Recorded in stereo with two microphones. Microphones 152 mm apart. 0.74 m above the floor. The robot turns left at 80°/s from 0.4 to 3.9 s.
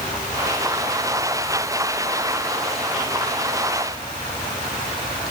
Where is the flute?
I don't hear a flute.